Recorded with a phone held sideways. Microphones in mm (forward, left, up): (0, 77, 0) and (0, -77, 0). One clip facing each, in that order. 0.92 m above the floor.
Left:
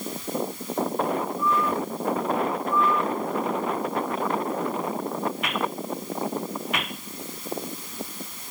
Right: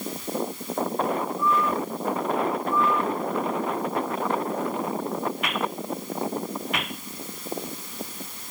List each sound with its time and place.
Only background noise.